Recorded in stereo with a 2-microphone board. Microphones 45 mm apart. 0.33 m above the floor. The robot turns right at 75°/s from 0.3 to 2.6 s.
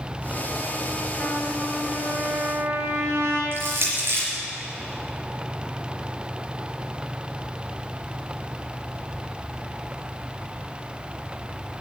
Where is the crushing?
55° right (ahead or behind), 4 m.